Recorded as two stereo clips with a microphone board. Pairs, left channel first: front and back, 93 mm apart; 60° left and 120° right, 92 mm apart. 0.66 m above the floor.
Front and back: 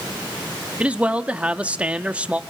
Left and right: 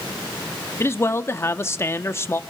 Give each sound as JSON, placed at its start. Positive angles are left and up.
{"t": 0.8, "sound": "a man speaking", "azimuth_deg": 110, "distance_m": 0.7}